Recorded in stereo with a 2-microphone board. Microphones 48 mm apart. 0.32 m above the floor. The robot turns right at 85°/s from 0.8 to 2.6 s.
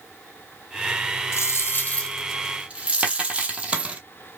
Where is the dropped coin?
95° left, 1.0 m; by 4.0 s 155° right, 1.0 m.